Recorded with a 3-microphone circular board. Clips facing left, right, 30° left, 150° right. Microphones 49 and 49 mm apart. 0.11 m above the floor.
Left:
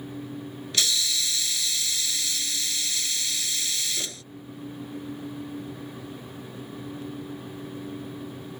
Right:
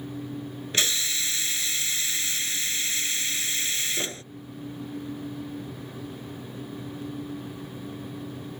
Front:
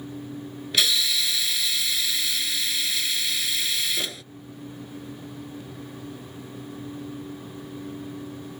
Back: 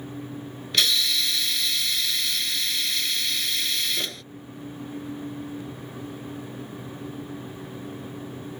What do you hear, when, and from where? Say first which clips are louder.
0.7 s a hiss: even, even; 55° right